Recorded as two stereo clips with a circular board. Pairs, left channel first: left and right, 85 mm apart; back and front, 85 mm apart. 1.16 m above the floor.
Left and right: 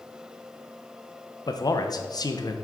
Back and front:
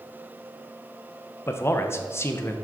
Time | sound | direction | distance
1.5 | a man speaking | 120° left | 0.7 m